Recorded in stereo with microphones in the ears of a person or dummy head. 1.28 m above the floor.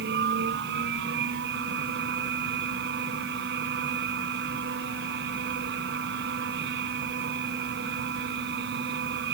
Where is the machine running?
70° right (ahead or behind).